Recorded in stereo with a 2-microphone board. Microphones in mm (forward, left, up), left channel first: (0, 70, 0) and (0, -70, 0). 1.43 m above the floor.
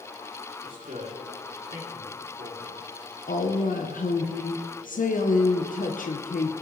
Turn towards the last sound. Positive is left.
turn(degrees=75)  # may be behind; listen again after turning